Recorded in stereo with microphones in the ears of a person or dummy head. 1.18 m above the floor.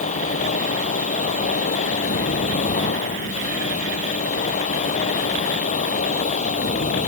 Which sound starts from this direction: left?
A machine running, at 0.0 s.